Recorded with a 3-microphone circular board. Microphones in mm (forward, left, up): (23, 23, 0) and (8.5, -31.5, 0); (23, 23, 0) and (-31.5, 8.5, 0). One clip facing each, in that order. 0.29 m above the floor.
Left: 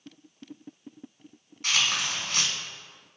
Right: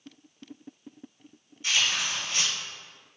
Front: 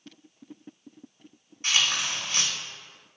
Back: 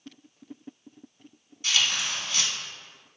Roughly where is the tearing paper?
Ahead left.